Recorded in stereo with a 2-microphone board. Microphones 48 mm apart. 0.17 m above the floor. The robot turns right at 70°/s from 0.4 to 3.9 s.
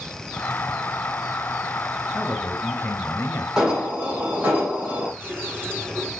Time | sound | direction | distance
2.1 | a man speaking | 5° left | 2.5 m
3.6 | an alarm | 5° right (ahead or behind) | 5 m
5.2 | a running tap | 40° right (ahead or behind) | 5.5 m